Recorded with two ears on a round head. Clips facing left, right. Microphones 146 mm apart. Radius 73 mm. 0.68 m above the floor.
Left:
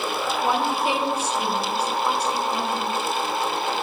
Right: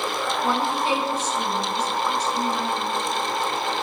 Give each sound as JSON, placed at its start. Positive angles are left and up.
{"t": 0.4, "sound": "a woman speaking", "side_deg": 10, "distance_m": 4.0}